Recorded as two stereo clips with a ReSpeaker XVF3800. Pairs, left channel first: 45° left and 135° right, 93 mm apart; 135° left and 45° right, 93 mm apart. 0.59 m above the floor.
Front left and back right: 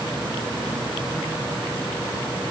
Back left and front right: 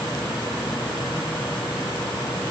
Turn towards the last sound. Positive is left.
No sound to turn to.